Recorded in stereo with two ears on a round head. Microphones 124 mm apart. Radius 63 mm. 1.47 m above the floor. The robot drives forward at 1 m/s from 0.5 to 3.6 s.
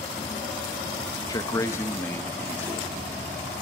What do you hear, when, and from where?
1.3 s a man speaking: 30° left (ahead or behind), 1.3 m; by 2.9 s 15° left (ahead or behind), 3 m